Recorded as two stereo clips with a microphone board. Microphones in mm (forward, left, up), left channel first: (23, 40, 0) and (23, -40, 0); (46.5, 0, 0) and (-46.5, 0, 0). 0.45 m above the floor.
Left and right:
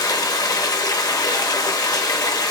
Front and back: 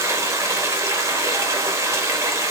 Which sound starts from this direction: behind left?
Running water, at 0.0 s.